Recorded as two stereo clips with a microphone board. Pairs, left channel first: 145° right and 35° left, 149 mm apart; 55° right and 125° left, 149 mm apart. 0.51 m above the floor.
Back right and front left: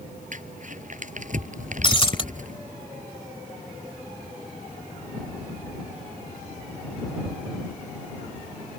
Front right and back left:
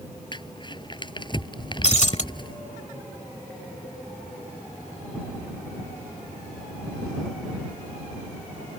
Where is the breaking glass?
95° right.